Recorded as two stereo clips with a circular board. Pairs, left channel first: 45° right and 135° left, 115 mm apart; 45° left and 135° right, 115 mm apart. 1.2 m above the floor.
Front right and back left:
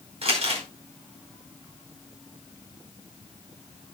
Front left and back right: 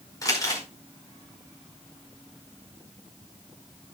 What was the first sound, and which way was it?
Crumpling, 105° left.